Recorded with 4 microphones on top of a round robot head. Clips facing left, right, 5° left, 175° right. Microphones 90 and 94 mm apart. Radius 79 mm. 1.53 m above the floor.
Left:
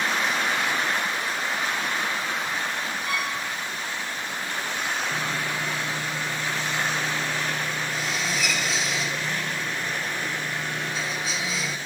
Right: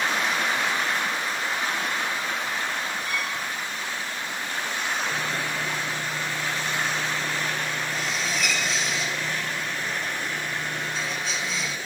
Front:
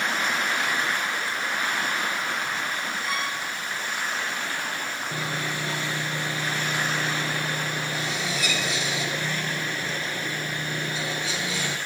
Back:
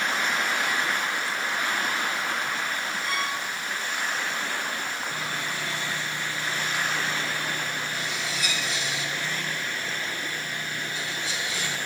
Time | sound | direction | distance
3.0 | a violin | 95° left | 5 m
5.1 | sawing | straight ahead | 1.0 m